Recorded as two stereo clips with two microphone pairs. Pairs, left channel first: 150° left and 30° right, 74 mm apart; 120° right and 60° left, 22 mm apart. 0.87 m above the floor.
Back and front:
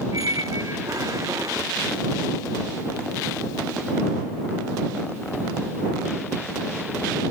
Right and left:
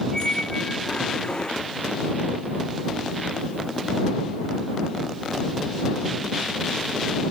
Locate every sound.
0.1 s a squeak: 65° right